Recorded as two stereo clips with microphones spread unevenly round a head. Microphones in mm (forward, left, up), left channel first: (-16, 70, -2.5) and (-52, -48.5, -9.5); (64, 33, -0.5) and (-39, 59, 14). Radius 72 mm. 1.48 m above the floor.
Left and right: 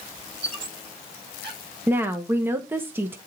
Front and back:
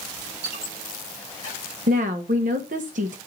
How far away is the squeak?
About 7 m.